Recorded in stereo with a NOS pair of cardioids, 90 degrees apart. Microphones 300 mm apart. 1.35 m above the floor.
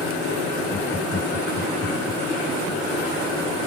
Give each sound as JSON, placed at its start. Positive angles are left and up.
{"t": 0.7, "sound": "laughter", "azimuth_deg": 25}